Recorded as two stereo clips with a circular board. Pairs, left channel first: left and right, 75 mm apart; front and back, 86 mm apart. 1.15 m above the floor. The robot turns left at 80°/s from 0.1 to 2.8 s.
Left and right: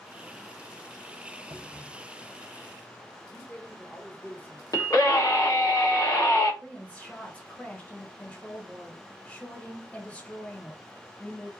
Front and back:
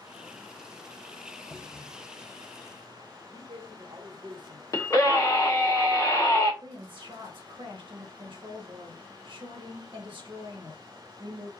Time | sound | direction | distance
1.5 | a cupboard door | 95° right | 1.2 m
3.3 | a man speaking | 160° left | 1.4 m
4.7 | a scream | 50° left | 1.1 m
6.6 | a woman speaking | 160° left | 1.4 m